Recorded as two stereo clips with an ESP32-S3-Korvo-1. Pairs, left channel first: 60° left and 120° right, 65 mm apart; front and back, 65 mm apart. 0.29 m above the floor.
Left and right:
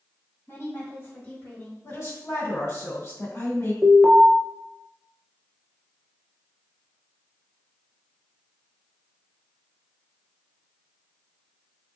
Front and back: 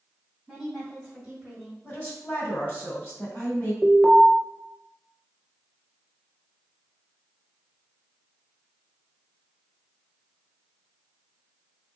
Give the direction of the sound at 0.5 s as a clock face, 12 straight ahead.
9 o'clock.